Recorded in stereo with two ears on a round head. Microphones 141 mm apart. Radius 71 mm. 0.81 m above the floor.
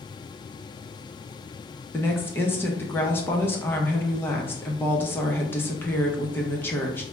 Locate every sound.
1.9 s a woman speaking: 15° left (ahead or behind), 0.7 m